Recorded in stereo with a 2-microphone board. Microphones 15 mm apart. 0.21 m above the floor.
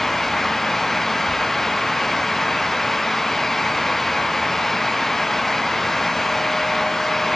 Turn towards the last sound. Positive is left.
No sound to turn to.